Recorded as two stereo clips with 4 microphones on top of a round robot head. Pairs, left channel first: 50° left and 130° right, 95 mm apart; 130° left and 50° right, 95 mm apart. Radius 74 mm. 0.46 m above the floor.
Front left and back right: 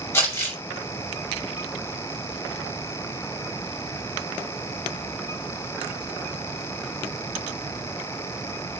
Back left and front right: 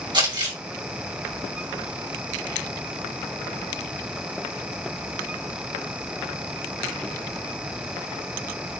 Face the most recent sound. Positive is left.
turn(degrees=-15)